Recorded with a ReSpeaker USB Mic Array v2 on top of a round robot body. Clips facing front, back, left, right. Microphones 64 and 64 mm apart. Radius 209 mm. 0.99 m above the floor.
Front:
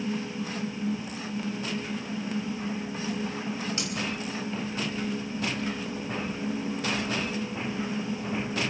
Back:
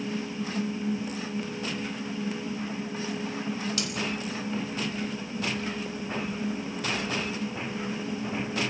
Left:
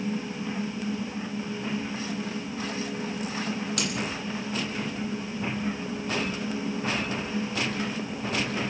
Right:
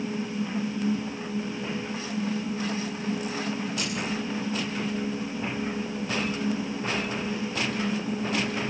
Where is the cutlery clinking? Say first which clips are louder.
Back 1 dB, left 1 dB; 65° left, 4.5 m.